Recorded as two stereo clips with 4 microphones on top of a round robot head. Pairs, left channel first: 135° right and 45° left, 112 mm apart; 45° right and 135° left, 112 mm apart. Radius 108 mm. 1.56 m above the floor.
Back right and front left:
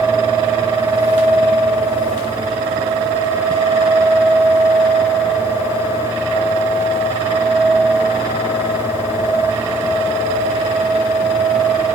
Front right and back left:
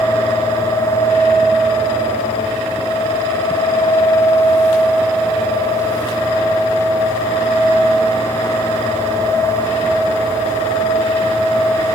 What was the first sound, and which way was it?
Only background noise.